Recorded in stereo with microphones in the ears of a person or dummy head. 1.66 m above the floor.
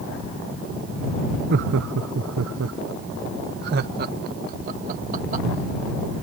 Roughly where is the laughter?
Right.